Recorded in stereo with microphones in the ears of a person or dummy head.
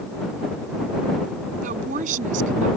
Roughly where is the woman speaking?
Right.